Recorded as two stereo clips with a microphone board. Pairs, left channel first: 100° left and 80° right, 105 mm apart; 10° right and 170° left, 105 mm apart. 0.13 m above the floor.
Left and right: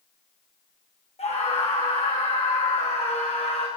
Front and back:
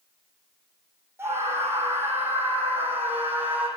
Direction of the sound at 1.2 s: 105° left.